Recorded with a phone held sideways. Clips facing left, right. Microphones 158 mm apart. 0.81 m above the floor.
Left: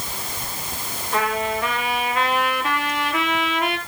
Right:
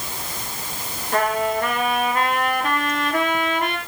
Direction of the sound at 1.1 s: 50° right (ahead or behind).